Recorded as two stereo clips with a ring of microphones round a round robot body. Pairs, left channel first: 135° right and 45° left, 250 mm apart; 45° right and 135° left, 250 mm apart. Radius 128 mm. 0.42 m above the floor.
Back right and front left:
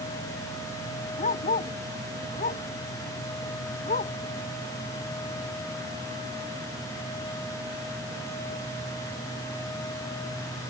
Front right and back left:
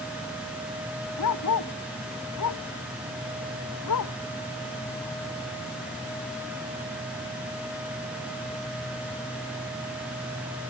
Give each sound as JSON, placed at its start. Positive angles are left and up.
{"t": 1.2, "sound": "a dog barking", "azimuth_deg": -75}